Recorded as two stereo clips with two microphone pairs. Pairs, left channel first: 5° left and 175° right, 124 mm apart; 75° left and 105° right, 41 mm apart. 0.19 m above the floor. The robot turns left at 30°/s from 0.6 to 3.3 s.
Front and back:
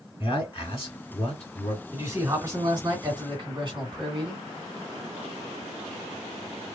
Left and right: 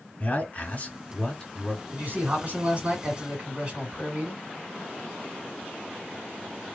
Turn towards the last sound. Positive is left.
turn(degrees=-155)